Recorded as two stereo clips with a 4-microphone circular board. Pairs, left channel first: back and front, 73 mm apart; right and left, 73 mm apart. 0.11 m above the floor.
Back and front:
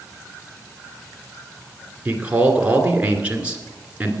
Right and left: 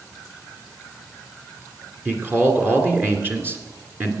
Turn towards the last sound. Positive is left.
turn(degrees=60)